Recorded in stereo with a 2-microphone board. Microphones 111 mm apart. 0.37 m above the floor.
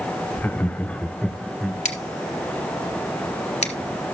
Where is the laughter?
15° left (ahead or behind), 0.8 m; by 1.8 s 5° left (ahead or behind), 1.2 m.